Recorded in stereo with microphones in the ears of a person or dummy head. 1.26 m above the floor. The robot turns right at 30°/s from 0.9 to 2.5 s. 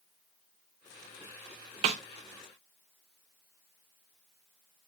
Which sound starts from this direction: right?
A snare drum, at 1.8 s.